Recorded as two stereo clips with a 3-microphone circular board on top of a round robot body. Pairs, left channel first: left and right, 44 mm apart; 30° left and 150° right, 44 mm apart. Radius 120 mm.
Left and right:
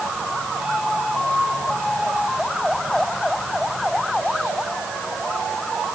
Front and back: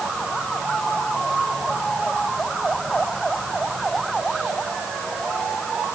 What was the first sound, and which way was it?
Only background noise.